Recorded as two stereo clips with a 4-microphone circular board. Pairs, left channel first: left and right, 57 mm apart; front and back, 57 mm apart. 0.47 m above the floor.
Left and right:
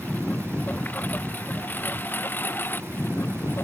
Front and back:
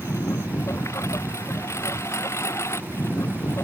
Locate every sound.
0.0 s a lawn mower: 30° left; by 3.6 s 40° left